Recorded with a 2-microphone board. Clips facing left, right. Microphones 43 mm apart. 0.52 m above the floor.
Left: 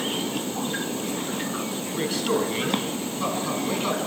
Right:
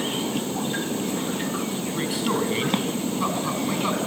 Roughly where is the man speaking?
Centre.